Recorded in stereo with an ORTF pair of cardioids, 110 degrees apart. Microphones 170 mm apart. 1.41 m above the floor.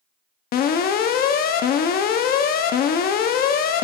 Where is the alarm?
65° left, 0.7 m.